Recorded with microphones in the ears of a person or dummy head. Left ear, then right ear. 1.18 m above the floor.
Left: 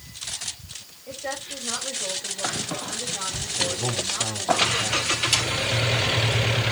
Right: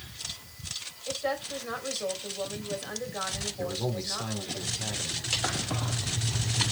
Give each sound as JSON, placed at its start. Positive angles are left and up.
{"t": 1.1, "sound": "a woman speaking", "side_deg": -50, "distance_m": 5.0}
{"t": 3.6, "sound": "a man speaking", "side_deg": -20, "distance_m": 5.0}
{"t": 5.3, "sound": "a clap", "side_deg": 15, "distance_m": 4.0}